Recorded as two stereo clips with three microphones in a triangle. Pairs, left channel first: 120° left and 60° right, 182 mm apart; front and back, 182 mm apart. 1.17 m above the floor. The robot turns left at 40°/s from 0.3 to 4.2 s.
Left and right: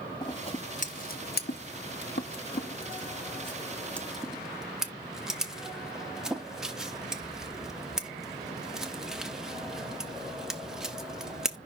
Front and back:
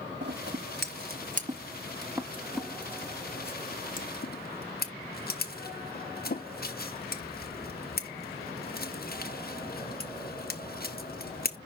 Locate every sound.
0.2 s scissors: 175° right, 1.2 m; by 11.6 s 25° left, 1.2 m